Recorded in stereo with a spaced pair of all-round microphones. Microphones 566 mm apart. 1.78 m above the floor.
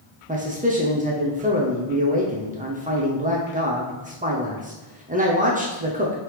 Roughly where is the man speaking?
Centre.